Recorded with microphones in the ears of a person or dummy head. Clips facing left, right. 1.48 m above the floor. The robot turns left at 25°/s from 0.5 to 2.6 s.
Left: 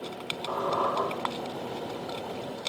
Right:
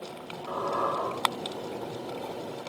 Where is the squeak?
5° right (ahead or behind), 1.1 m; by 1.1 s 10° left (ahead or behind), 1.1 m.